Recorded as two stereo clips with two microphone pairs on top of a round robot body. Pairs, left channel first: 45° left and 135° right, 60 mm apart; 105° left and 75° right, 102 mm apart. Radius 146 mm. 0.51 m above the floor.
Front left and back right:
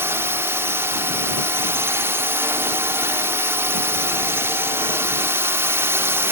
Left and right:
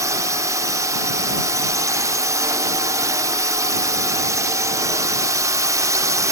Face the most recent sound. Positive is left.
turn(degrees=-115)